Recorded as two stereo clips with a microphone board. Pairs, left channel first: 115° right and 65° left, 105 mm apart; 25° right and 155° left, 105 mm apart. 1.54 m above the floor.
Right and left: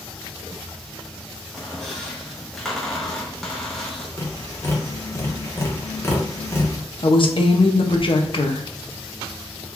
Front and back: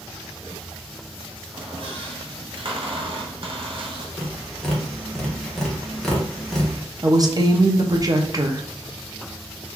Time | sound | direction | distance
1.5 | a squeak | 160° left | 0.7 m
4.2 | tapping | 100° right | 0.9 m
7.0 | a woman speaking | 150° right | 0.5 m